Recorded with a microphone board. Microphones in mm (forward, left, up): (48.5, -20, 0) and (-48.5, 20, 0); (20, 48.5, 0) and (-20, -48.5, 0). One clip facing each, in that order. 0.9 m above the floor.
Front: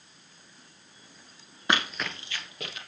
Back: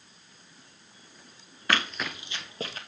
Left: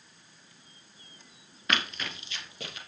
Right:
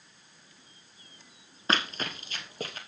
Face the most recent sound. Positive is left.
turn(degrees=-155)